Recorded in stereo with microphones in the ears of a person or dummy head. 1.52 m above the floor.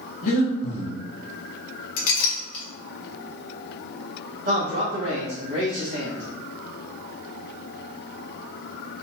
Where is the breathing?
55° left (ahead or behind), 0.8 m.